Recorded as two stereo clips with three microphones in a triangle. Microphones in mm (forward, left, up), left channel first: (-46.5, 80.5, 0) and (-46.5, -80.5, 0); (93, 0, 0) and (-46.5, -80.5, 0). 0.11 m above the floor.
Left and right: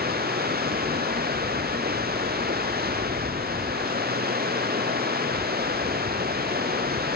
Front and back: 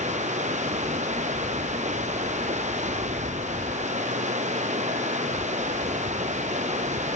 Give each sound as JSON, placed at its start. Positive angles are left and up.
{"t": 0.0, "sound": "running water", "azimuth_deg": -105}